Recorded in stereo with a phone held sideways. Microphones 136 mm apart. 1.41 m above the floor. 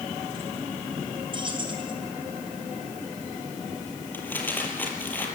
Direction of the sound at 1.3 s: 35° right (ahead or behind).